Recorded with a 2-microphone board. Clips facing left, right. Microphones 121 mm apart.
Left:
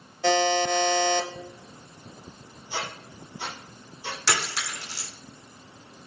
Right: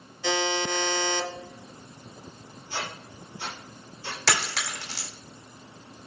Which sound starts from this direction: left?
A buzzer, at 0.2 s.